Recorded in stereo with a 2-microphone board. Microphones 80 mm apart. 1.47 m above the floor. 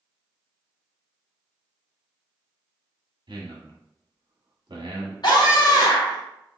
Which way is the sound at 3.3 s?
75° right (ahead or behind).